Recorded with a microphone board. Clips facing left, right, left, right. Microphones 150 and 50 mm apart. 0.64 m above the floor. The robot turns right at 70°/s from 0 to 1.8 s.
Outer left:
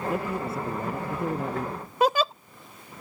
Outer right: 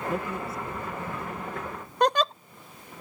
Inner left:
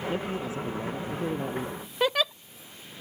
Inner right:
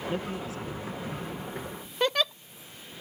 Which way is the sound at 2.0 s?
5° left (ahead or behind).